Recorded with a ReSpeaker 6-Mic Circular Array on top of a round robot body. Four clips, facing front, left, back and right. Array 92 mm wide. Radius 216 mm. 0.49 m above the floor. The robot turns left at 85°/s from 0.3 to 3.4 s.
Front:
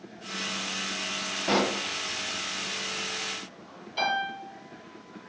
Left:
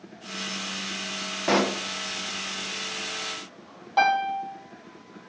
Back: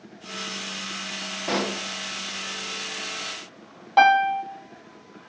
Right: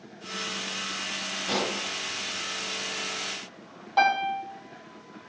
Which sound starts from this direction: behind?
A piano, at 4.0 s.